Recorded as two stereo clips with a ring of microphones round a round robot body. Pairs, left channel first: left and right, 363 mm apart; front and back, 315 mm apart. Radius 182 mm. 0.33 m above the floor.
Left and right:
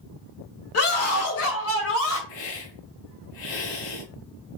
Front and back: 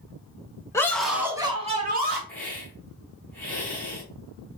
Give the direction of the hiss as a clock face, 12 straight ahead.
9 o'clock.